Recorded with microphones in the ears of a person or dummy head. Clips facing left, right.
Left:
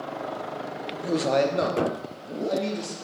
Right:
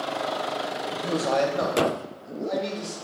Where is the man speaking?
10° right (ahead or behind), 0.6 m; by 2.9 s 40° left (ahead or behind), 3 m.